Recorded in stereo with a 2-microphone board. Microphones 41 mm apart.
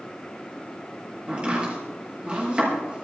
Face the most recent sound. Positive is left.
turn(degrees=-30)  # may be behind; listen again after turning